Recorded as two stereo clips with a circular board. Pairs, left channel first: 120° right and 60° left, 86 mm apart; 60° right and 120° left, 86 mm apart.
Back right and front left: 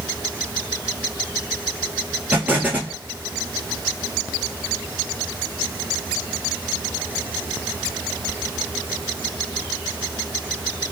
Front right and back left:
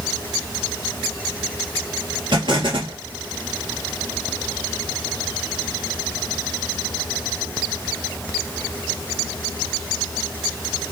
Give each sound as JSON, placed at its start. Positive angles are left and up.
{"t": 2.3, "sound": "an explosion", "azimuth_deg": 130, "distance_m": 1.9}